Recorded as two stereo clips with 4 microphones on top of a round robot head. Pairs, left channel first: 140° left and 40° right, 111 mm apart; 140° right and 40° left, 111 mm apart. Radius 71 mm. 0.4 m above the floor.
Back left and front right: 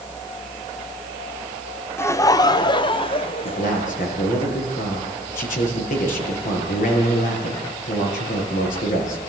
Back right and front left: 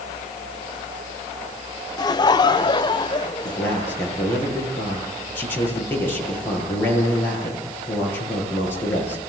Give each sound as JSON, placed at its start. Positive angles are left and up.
{"t": 2.0, "sound": "laughter", "azimuth_deg": -165, "distance_m": 1.0}
{"t": 3.5, "sound": "a man speaking", "azimuth_deg": 145, "distance_m": 8.0}